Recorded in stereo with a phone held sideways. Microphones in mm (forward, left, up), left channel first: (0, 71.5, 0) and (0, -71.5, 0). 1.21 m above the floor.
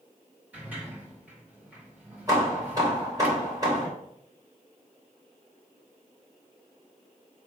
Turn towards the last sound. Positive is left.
turn(degrees=-25)  # may be behind; listen again after turning